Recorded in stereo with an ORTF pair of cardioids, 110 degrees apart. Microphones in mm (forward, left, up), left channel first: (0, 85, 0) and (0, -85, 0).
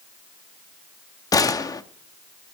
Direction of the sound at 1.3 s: 20° left.